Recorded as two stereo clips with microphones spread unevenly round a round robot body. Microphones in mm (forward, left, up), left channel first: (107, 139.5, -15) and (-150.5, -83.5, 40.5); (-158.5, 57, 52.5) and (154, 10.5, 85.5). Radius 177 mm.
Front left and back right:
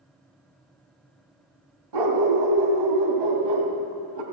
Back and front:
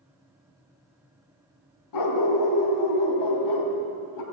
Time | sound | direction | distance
1.9 | a dog barking | 155° right | 2 m